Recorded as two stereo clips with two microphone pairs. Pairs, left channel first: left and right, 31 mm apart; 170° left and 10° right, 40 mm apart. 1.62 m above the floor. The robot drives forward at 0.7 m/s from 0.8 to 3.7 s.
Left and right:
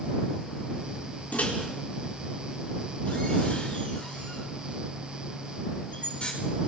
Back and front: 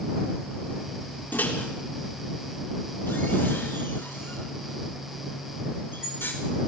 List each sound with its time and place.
1.3 s a microwave: 125° left, 4 m; by 6.3 s 140° left, 5.5 m